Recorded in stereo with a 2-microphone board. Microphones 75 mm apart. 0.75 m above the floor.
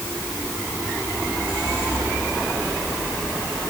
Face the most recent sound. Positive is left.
No sound to turn to.